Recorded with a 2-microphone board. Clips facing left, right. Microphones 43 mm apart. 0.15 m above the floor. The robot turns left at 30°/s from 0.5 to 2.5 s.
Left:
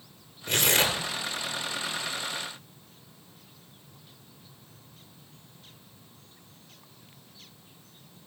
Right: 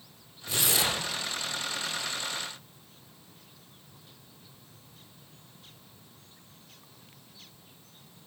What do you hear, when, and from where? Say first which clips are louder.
0.5 s tearing paper: left 4 dB; 60° left (ahead or behind), 2.5 m; by 1.0 s 45° left (ahead or behind), 2.5 m